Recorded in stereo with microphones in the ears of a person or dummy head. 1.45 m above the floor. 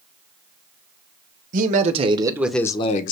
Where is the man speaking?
45° right (ahead or behind), 1.2 m; by 3.1 s 50° left (ahead or behind), 0.7 m.